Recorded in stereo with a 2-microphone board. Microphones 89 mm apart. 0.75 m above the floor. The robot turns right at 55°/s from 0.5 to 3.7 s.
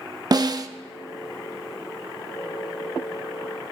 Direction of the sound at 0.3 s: 45° right (ahead or behind).